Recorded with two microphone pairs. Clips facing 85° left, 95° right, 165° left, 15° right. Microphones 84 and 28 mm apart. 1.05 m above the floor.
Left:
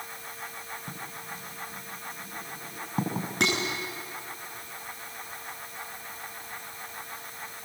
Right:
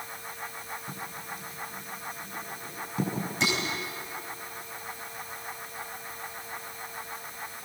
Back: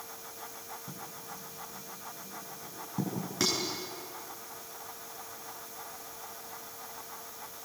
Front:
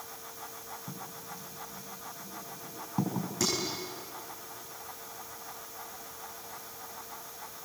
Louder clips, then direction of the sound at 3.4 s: Left 2 dB, back 1 dB; 110° left.